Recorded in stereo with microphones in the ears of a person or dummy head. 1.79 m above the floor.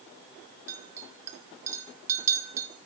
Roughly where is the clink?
Right.